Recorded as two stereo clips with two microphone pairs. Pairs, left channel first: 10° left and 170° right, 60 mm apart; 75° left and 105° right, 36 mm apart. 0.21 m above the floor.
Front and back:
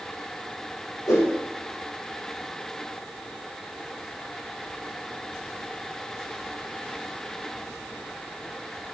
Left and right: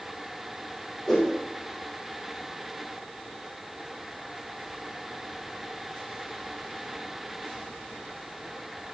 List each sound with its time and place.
1.1 s a whoosh: straight ahead, 3.5 m